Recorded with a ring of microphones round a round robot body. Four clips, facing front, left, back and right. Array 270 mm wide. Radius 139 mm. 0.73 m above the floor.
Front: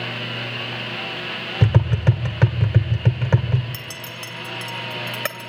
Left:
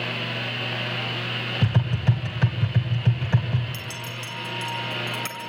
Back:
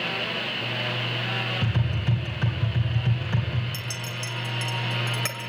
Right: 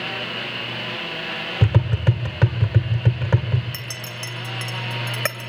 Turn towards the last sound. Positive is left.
turn(degrees=-60)